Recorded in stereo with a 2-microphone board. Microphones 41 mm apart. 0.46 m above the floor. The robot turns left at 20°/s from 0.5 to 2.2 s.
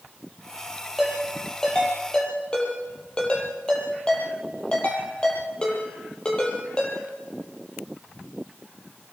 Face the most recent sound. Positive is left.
turn(degrees=25)  # may be behind; listen again after turning